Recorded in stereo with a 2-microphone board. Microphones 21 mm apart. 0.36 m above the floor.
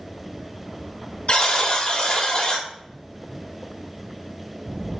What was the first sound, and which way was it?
A buzzer, 50° left (ahead or behind).